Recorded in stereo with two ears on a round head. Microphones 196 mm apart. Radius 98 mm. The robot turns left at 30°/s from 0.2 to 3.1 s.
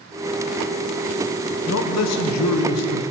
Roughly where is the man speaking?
Behind left.